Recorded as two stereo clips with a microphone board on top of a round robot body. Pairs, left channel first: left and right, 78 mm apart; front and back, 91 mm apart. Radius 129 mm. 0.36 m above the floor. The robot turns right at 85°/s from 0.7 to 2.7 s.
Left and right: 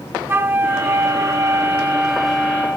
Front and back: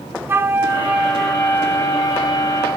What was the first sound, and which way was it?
A flute, 130° right.